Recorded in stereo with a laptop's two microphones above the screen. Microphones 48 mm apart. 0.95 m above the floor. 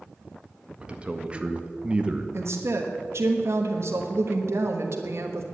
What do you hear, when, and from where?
0.8 s a man speaking: 20° right (ahead or behind), 1.7 m
2.3 s a woman speaking: 65° right (ahead or behind), 1.2 m